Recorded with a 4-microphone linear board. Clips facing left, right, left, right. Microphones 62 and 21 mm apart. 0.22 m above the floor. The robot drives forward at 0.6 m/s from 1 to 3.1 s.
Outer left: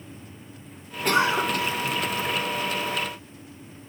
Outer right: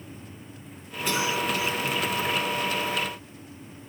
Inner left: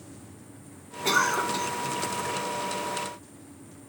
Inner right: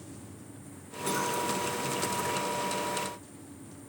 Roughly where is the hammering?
No hammering in this recording.